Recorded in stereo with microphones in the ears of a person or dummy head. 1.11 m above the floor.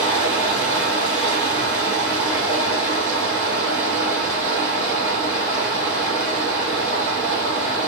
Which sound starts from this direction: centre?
Running water, at 0.0 s.